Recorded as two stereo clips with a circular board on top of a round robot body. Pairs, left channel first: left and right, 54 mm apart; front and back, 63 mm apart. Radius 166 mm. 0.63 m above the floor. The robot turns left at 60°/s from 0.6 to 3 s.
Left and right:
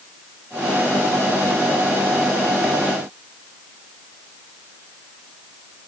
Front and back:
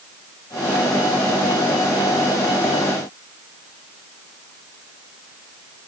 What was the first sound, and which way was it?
Only background noise.